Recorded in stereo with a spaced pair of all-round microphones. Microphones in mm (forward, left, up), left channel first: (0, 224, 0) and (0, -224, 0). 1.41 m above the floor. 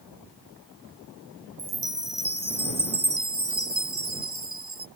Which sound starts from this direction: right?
A chime, at 1.6 s.